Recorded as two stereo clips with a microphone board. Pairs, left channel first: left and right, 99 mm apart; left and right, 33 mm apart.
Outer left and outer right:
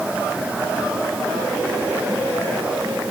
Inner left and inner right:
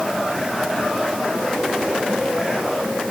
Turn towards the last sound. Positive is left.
No sound to turn to.